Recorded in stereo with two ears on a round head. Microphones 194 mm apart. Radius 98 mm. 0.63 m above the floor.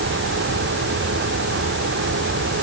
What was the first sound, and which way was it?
Only background noise.